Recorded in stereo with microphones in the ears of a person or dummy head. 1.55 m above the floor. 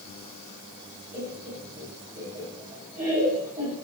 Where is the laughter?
10° right (ahead or behind), 1.9 m.